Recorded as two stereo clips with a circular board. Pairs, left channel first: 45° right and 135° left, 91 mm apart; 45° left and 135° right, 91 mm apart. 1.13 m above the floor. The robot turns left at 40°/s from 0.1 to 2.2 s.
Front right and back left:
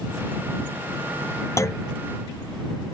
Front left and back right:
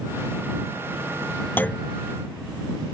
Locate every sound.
1.6 s a clunk: 10° right; by 1.9 s 25° right